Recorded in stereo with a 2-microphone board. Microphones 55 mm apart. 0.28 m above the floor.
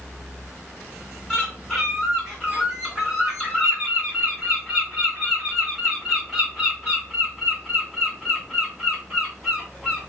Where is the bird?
Centre (ahead or behind), 1.9 m.